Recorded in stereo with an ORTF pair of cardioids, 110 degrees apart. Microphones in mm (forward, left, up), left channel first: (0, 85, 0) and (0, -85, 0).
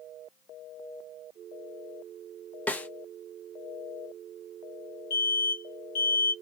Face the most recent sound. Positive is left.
turn(degrees=60)